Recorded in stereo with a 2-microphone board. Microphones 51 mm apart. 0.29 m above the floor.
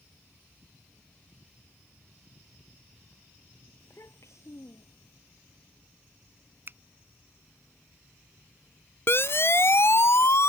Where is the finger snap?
45° right (ahead or behind).